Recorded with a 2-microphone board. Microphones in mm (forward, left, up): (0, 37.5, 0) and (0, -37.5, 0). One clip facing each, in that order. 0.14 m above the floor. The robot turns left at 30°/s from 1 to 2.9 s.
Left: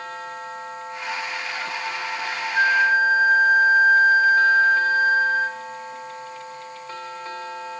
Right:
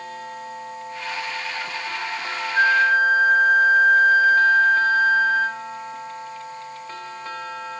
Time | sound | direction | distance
2.5 | a flute | 5° left (ahead or behind) | 2.0 m